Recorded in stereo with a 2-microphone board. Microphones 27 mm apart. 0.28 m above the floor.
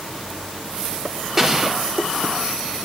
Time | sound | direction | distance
1.4 | an explosion | 15° right (ahead or behind) | 1.3 m